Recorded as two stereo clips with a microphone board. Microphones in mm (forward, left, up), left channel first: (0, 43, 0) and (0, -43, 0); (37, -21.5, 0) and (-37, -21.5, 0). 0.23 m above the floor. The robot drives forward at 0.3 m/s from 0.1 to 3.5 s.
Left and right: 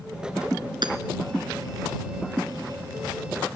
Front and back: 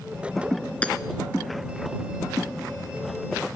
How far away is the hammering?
About 2 m.